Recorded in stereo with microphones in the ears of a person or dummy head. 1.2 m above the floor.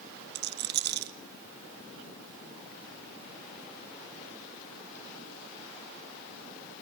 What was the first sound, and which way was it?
A rattle, 50° right (ahead or behind).